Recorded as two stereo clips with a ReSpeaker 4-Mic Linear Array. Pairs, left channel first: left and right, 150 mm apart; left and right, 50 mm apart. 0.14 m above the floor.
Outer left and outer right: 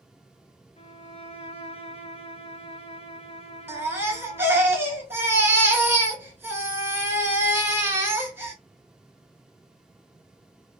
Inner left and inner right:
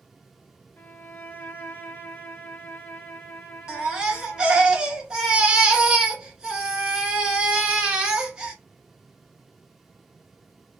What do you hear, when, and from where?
0.8 s a violin: 45° left (ahead or behind), 0.7 m
3.7 s a baby crying: 15° right (ahead or behind), 0.9 m